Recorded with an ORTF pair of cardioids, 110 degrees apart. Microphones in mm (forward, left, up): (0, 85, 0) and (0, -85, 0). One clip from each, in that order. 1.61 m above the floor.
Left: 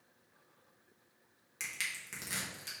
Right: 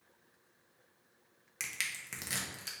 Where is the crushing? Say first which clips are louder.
Right 1 dB; 20° right, 1.1 m.